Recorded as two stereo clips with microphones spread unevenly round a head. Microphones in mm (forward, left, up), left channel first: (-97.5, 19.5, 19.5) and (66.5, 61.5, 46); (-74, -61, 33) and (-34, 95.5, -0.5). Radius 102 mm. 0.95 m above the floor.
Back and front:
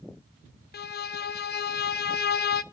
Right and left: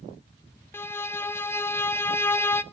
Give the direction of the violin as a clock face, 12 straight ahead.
6 o'clock.